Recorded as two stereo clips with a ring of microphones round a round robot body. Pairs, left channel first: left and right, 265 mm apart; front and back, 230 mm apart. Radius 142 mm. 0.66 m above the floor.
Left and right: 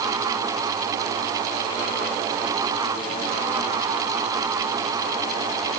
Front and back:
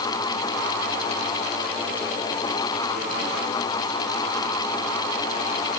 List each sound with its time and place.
Only background noise.